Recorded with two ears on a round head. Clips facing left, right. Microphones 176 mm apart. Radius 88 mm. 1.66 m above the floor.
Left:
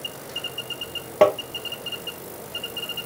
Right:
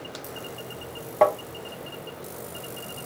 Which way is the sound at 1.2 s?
40° left (ahead or behind).